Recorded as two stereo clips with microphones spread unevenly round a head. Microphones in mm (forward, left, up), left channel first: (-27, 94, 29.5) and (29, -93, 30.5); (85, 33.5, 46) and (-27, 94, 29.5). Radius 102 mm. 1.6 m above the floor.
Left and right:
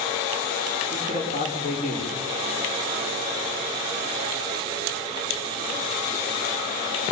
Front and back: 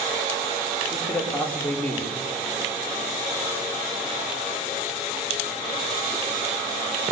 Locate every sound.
0.9 s a man speaking: 50° left, 5.5 m